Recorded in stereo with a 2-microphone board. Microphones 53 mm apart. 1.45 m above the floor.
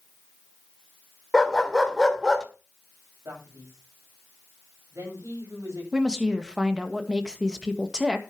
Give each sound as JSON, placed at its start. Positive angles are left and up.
{"t": 1.3, "sound": "a dog barking", "side_deg": 5, "distance_m": 1.8}
{"t": 3.2, "sound": "a man speaking", "side_deg": -75, "distance_m": 8.0}
{"t": 5.9, "sound": "a woman speaking", "side_deg": -15, "distance_m": 1.8}